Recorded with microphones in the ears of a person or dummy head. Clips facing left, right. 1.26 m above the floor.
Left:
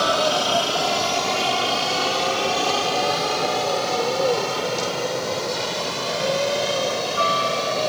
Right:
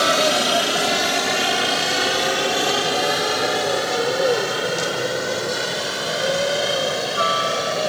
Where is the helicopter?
25° right (ahead or behind); by 7.9 s 10° right (ahead or behind).